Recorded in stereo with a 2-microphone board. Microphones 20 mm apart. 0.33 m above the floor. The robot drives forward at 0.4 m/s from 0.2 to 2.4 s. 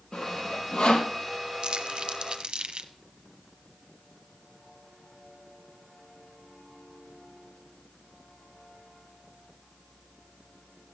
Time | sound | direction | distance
0.1 | sawing | 85° left | 3 m
1.6 | crumpling | 60° right (ahead or behind) | 0.9 m